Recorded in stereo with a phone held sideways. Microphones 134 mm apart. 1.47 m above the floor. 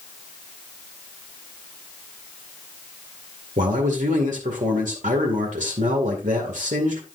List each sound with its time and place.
3.6 s a man speaking: 70° right (ahead or behind), 2 m